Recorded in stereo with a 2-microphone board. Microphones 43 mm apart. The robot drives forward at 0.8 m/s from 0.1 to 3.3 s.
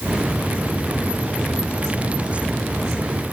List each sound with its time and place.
Only background noise.